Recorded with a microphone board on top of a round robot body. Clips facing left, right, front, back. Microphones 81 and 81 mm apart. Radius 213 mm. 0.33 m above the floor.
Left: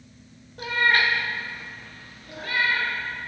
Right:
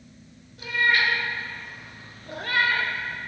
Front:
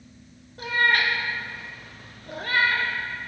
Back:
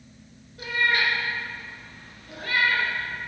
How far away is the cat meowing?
About 1.0 m.